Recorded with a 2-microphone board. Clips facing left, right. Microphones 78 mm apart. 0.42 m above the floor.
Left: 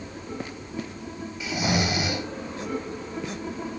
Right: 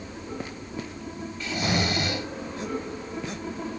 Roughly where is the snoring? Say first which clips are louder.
Left 1 dB; centre.